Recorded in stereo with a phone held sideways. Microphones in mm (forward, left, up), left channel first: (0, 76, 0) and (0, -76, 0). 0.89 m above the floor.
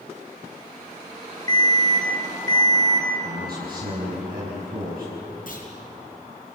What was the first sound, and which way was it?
An alarm, 25° left (ahead or behind).